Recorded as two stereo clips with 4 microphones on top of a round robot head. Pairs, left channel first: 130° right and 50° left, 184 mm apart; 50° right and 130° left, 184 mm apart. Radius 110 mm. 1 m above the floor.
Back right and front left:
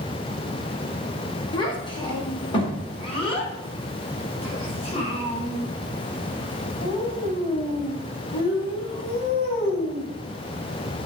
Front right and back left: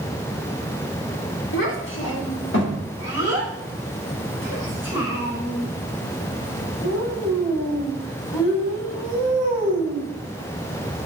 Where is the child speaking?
65° right, 2.5 m; by 10.1 s 75° right, 6.5 m.